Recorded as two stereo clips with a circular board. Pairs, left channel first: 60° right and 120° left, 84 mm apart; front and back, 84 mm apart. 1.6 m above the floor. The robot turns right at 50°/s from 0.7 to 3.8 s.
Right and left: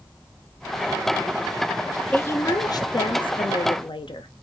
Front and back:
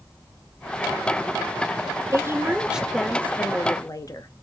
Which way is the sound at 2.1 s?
130° right.